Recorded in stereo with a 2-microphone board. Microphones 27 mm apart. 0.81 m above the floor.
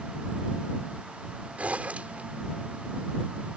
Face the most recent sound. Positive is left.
turn(degrees=-65)  # may be behind; listen again after turning